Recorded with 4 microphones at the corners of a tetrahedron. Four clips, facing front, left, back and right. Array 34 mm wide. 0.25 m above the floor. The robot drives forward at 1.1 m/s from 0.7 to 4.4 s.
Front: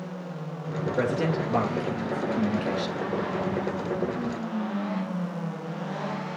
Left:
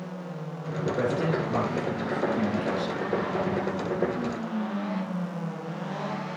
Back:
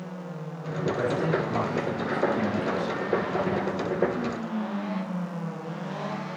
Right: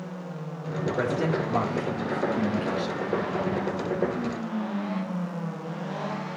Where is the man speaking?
5° left, 5 m.